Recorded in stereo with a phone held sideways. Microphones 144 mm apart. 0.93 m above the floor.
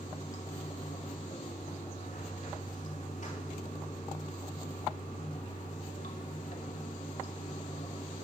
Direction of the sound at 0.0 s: 60° left (ahead or behind).